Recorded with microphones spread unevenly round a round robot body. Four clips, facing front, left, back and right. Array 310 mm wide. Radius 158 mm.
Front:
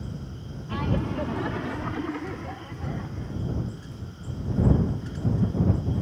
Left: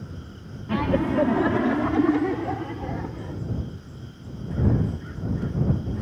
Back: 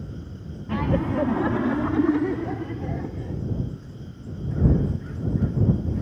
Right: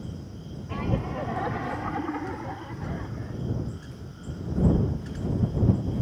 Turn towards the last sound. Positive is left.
turn(degrees=150)